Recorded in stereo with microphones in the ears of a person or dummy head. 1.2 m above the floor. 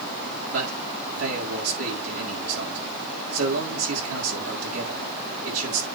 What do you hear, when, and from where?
0.5 s a man speaking: 90° right, 4.5 m